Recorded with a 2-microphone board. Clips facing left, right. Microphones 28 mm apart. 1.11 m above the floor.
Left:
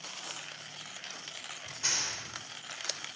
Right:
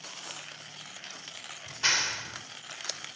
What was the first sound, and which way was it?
A clap, 40° right (ahead or behind).